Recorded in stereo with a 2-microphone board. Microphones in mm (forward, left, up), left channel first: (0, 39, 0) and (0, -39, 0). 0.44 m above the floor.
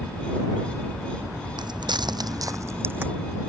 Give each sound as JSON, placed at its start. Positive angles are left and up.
{"t": 1.6, "sound": "footsteps", "side_deg": -70}